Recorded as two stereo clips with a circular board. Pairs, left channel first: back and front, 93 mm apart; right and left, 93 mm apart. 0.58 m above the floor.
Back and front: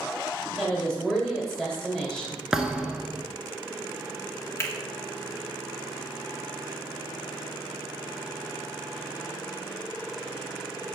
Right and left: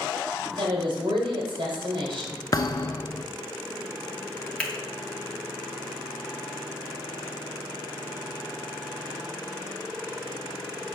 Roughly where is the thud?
Right.